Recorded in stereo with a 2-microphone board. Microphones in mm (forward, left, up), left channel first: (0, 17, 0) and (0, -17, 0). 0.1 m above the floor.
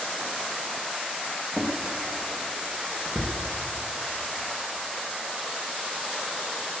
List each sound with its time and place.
1.5 s a drawer: 30° right (ahead or behind), 2.5 m